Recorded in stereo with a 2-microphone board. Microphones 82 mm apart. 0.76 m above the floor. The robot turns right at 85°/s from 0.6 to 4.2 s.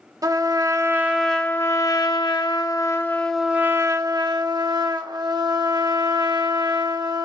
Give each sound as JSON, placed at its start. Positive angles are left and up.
{"t": 0.2, "sound": "a trumpet", "azimuth_deg": -55, "distance_m": 0.5}